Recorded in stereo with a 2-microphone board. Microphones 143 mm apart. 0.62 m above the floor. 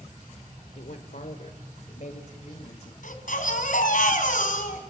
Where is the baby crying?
70° left (ahead or behind), 4 m.